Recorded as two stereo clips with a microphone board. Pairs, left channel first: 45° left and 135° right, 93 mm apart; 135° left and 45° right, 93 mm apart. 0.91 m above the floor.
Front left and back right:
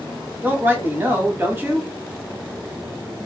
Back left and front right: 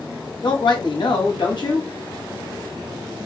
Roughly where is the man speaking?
Behind.